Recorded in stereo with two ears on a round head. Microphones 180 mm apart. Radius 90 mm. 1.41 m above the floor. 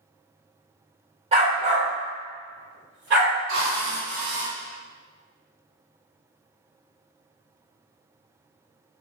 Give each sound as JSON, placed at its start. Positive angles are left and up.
{"t": 1.3, "sound": "a dog barking", "side_deg": -30, "distance_m": 1.5}
{"t": 3.5, "sound": "a drill", "side_deg": -70, "distance_m": 1.4}